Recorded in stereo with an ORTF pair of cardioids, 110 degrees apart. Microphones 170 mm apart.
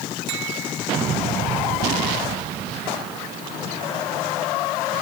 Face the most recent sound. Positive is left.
No sound to turn to.